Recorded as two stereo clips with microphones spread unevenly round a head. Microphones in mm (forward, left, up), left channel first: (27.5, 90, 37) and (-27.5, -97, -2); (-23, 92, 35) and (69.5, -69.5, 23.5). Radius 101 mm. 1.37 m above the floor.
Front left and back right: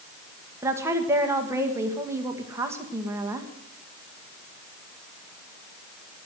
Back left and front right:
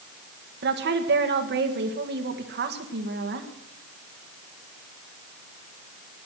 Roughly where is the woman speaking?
Ahead right.